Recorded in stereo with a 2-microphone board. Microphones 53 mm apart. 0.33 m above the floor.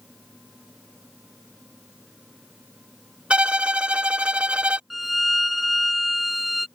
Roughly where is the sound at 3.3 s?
Right.